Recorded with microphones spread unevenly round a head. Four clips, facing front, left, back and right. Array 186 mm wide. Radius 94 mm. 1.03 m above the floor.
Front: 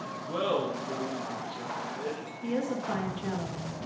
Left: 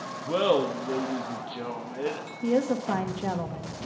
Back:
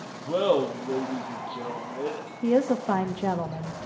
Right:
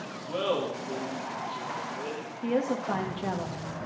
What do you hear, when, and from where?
0.3 s laughter: 135° left, 1.6 m
2.4 s a woman speaking: 165° left, 1.7 m